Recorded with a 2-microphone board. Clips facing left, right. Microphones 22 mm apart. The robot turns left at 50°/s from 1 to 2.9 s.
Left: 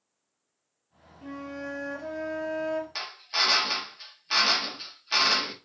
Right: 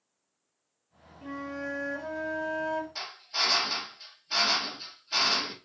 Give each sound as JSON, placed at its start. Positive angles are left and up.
{"t": 1.2, "sound": "a flute", "azimuth_deg": 175, "distance_m": 1.6}
{"t": 3.0, "sound": "a drill", "side_deg": 60, "distance_m": 0.8}